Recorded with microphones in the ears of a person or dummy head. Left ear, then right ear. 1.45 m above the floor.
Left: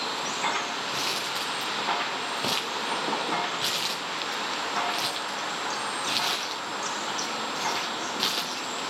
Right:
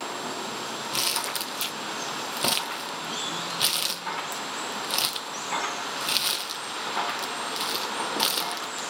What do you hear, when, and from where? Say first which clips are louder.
0.9 s crumpling: right 4 dB; 25° right (ahead or behind), 0.8 m